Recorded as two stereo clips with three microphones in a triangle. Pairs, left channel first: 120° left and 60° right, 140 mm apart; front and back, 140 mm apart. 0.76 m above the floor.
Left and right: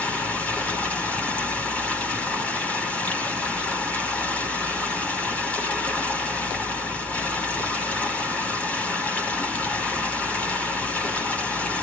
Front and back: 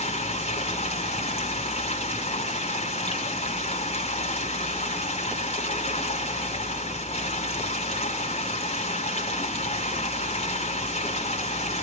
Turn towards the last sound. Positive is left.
turn(degrees=40)